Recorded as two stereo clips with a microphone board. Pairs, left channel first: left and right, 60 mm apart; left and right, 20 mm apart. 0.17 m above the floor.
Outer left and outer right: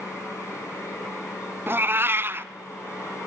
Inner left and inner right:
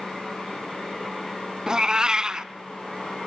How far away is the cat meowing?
About 0.7 m.